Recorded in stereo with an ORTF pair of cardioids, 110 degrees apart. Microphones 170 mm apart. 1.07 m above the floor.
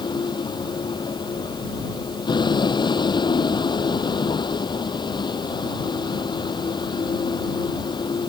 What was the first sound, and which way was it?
A vehicle, 25° left.